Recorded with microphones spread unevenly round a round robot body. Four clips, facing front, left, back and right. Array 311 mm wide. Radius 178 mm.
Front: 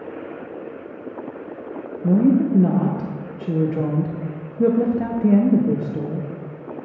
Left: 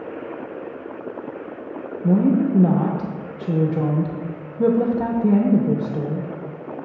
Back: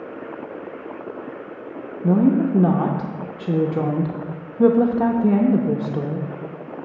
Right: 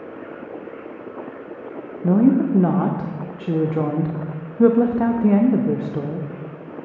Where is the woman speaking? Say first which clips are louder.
Right 2 dB, front 1 dB; 140° right, 0.8 m.